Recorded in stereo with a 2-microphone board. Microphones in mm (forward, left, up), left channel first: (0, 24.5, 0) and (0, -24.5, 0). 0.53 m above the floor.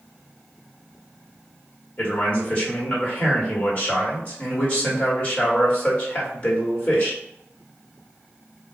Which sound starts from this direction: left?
A man speaking, at 2.0 s.